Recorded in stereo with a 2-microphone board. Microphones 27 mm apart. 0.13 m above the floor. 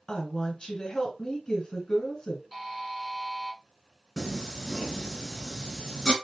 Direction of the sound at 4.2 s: 25° left (ahead or behind).